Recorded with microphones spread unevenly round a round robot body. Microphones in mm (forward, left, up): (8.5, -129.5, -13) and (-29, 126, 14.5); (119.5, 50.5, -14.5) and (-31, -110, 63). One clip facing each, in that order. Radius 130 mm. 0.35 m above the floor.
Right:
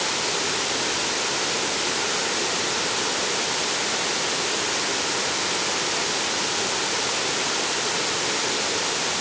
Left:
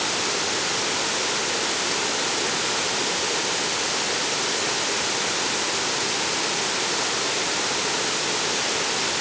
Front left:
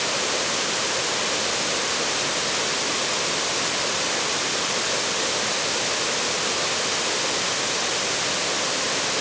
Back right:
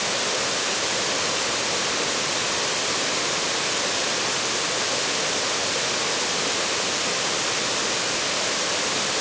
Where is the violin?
I don't hear a violin.